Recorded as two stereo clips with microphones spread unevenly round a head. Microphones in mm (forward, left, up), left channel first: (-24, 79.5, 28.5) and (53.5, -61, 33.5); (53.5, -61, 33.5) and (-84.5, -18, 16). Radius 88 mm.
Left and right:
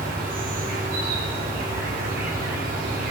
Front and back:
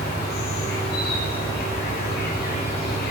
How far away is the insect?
About 2 m.